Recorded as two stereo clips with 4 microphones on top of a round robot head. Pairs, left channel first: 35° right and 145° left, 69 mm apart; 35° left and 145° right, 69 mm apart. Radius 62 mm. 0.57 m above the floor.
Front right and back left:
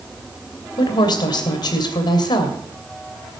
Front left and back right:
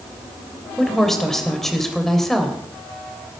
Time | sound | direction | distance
0.8 | a woman speaking | 50° right | 2.5 m